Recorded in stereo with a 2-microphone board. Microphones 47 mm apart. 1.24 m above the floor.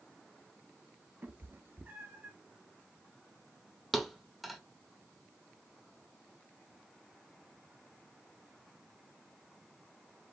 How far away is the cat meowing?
About 0.9 m.